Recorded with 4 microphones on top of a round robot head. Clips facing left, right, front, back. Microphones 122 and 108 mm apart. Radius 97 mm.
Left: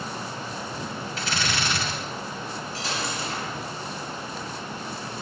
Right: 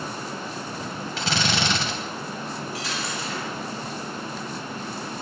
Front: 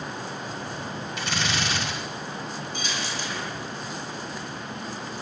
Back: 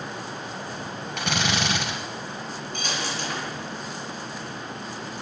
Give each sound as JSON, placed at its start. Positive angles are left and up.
{"t": 1.2, "sound": "a drill", "azimuth_deg": -125, "distance_m": 2.5}
{"t": 2.7, "sound": "a dropped coin", "azimuth_deg": 150, "distance_m": 7.0}